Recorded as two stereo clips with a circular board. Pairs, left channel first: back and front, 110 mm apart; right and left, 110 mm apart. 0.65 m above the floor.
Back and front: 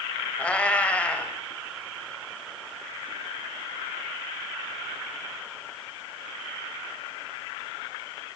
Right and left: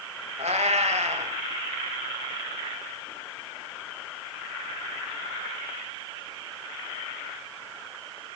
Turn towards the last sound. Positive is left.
turn(degrees=100)